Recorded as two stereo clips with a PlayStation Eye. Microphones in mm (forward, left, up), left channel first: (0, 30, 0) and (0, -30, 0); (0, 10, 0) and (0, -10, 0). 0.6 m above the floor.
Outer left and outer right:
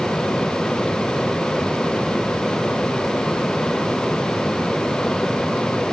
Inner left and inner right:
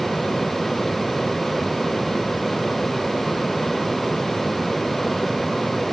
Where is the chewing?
I don't hear chewing.